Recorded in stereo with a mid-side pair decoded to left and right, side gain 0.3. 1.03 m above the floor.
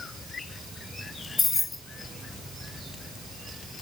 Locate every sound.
1.4 s keys jangling: 55° left, 0.9 m